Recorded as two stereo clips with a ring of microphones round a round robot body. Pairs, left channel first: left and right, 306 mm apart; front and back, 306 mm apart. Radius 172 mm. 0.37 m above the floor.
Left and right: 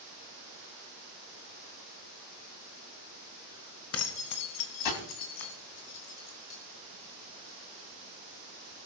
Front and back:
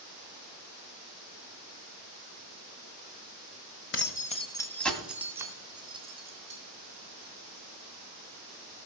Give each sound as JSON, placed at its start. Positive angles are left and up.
{"t": 3.9, "sound": "keys jangling", "azimuth_deg": 50, "distance_m": 1.6}